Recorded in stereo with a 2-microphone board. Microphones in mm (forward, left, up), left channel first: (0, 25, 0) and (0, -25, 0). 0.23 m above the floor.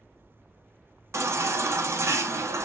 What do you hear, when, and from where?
1.1 s a baby crying: 70° right (ahead or behind), 0.6 m